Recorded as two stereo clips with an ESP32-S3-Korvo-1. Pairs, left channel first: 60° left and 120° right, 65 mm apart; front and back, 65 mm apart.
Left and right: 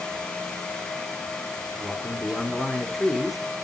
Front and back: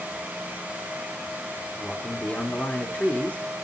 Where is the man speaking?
35° right, 1.7 m.